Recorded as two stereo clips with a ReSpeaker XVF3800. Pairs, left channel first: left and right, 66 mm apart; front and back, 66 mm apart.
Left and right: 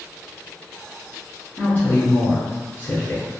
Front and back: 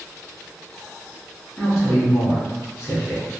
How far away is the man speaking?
About 1.1 m.